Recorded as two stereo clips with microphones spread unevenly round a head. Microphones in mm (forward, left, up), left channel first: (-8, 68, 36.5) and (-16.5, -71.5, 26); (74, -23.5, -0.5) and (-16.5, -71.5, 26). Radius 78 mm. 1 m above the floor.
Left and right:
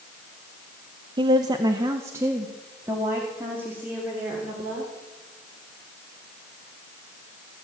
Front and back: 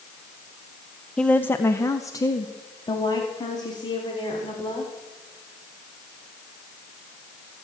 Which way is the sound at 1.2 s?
45° right.